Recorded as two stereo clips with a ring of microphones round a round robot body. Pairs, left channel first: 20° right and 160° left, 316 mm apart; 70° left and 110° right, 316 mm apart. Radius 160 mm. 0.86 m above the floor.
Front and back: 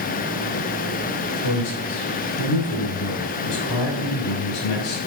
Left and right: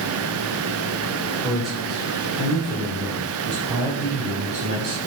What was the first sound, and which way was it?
A man speaking, 20° right.